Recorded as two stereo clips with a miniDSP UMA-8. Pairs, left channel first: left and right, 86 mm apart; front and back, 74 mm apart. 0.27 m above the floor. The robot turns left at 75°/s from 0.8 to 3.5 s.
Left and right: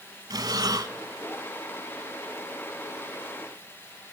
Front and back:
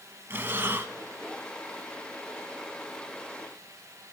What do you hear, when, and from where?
0.3 s breathing: 120° right, 1.0 m; by 0.9 s 130° right, 1.0 m